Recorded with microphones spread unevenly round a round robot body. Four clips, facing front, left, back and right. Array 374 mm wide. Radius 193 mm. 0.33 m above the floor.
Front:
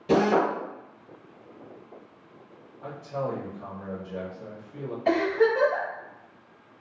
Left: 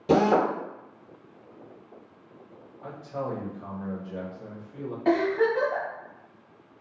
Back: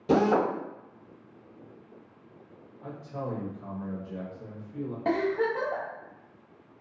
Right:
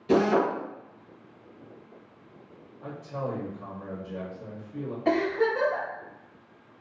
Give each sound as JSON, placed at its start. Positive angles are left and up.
{"t": 0.1, "sound": "a drill", "azimuth_deg": 95, "distance_m": 0.7}
{"t": 2.8, "sound": "a man speaking", "azimuth_deg": -80, "distance_m": 0.9}
{"t": 5.0, "sound": "a giggle", "azimuth_deg": -170, "distance_m": 1.1}